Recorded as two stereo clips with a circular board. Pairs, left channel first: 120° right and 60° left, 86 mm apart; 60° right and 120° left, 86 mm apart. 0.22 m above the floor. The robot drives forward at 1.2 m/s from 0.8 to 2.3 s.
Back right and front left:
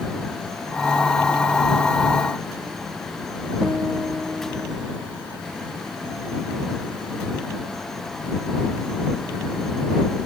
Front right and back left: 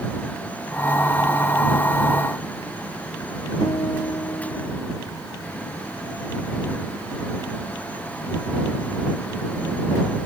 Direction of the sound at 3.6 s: 25° right.